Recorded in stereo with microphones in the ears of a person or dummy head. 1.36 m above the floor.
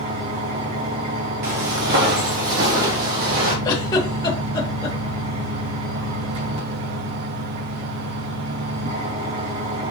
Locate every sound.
0.0 s an engine running: 35° right (ahead or behind), 2.5 m
1.4 s footsteps: 50° right (ahead or behind), 2.0 m; by 3.5 s 45° right (ahead or behind), 4 m
3.6 s a giggle: 25° left (ahead or behind), 2.0 m